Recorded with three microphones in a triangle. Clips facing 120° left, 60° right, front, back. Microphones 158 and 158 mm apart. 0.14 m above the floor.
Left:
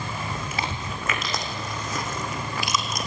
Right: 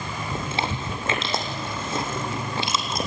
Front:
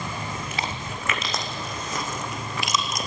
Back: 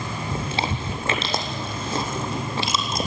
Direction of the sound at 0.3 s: 120° right.